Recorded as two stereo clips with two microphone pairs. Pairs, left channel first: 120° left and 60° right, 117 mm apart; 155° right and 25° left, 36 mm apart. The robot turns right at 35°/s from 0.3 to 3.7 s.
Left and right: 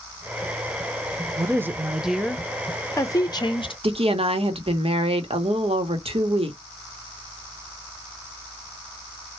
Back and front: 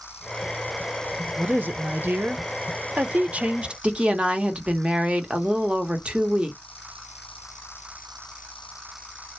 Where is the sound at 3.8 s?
30° right, 0.8 m.